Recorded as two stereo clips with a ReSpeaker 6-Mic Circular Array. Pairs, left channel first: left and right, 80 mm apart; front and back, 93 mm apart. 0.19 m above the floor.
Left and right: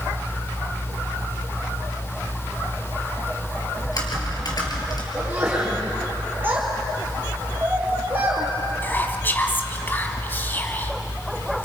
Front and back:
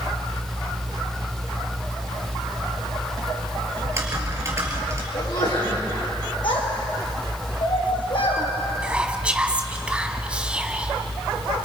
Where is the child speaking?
25° right, 4.5 m.